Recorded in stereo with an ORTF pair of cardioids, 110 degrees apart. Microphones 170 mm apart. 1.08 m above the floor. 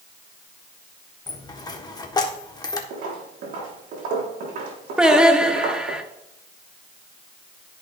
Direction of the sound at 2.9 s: 60° right.